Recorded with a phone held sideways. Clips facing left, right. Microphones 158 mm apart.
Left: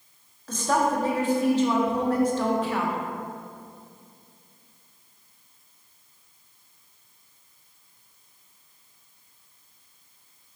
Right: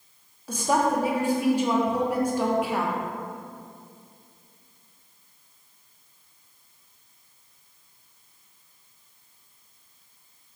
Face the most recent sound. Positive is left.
turn(degrees=-10)  # may be behind; listen again after turning